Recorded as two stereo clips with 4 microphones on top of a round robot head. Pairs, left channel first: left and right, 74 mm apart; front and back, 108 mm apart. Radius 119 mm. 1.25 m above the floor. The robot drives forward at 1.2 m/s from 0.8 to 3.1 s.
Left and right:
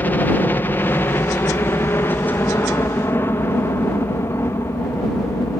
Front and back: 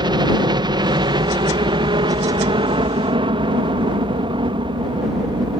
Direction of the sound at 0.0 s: 150° left.